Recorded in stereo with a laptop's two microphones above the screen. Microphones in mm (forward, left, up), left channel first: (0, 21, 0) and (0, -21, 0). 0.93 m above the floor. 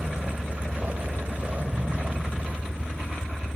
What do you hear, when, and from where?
0.0 s a vehicle: 40° right (ahead or behind)